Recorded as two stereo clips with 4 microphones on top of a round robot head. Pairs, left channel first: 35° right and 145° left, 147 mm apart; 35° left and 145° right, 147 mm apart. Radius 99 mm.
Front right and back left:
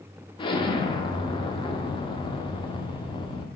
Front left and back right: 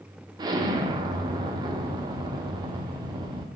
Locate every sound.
0.4 s an explosion: 85° right, 0.5 m